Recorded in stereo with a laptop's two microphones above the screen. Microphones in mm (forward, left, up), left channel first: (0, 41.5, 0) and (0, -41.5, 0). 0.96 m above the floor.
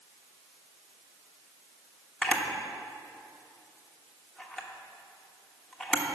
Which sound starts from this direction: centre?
A camera shutter, at 2.2 s.